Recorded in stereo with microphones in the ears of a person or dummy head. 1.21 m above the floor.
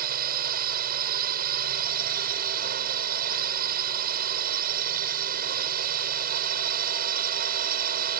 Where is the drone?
50° right (ahead or behind).